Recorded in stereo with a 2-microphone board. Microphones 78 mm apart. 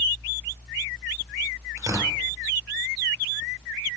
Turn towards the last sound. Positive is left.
turn(degrees=-40)  # may be behind; listen again after turning